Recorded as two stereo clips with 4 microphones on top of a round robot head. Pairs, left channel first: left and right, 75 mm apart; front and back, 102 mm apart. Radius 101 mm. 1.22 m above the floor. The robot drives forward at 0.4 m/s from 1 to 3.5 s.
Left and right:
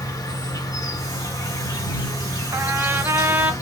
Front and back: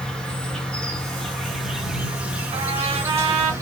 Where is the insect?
80° left, 1.5 m; by 3.6 s 125° left, 1.6 m.